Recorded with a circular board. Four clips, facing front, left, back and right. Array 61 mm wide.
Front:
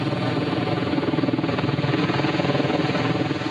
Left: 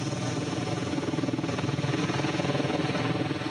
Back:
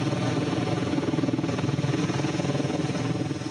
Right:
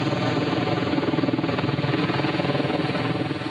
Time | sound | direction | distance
0.0 | a helicopter | 65° right | ?